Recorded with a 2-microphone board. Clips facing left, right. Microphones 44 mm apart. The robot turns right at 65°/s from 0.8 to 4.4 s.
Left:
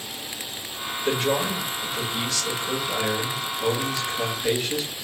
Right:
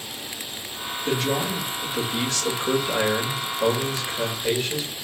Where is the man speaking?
145° left, 1.8 m; by 4.9 s 5° left, 1.8 m.